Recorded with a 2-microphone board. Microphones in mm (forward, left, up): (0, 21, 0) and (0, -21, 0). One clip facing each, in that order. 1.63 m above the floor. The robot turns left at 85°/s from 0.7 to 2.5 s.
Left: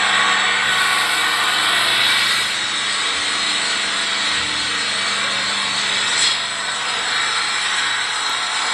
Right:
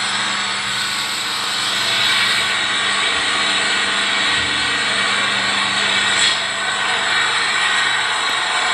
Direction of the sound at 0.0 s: 115° left.